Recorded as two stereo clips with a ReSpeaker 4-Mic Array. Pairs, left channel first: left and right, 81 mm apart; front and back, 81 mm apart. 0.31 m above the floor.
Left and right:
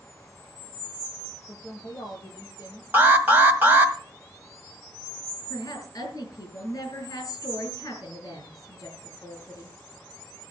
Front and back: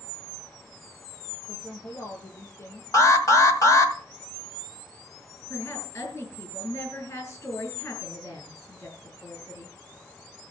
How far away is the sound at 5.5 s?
About 6 m.